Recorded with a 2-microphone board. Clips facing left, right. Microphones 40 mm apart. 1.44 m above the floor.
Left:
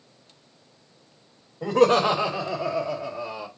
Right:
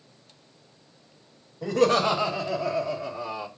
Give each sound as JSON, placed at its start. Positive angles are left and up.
{"t": 1.6, "sound": "laughter", "side_deg": 40, "distance_m": 1.6}